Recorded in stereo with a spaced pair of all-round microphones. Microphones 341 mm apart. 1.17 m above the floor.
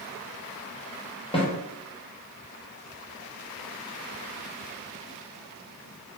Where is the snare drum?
15° left (ahead or behind), 0.7 m.